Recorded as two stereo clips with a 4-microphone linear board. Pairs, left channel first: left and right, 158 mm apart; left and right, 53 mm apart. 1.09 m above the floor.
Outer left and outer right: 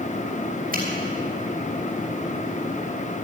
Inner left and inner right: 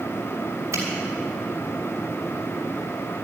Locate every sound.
0.7 s a finger snap: 65° right (ahead or behind), 6.5 m